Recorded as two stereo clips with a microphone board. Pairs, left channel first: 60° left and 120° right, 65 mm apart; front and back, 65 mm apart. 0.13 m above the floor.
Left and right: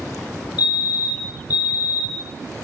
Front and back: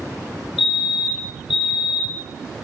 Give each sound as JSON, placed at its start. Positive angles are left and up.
{"t": 0.6, "sound": "a fire alarm", "azimuth_deg": -75, "distance_m": 2.5}